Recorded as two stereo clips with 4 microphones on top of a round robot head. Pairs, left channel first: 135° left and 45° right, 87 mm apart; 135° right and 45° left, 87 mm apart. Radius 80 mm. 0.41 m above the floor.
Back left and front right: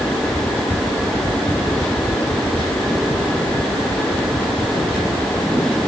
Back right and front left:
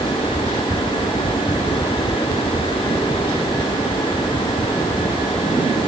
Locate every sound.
Only background noise.